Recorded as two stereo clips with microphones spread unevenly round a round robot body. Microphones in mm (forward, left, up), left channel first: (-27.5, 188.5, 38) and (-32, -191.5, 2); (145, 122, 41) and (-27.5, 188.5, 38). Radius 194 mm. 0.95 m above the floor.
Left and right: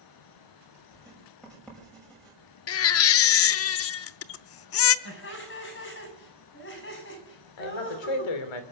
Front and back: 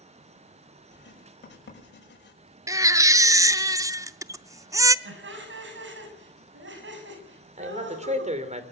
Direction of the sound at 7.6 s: 105° left.